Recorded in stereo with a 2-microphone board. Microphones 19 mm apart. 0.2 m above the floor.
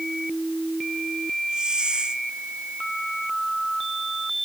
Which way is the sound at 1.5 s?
55° right (ahead or behind).